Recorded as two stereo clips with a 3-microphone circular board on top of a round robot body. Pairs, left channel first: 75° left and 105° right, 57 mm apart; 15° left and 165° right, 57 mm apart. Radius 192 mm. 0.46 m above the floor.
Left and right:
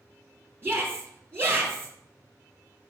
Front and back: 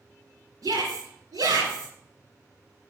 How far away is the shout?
About 2 m.